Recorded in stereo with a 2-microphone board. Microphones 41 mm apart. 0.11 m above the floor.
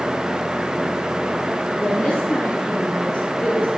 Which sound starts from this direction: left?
A woman speaking, at 1.8 s.